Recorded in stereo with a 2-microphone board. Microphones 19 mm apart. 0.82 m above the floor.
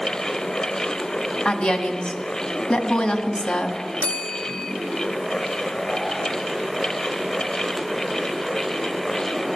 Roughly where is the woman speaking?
Left.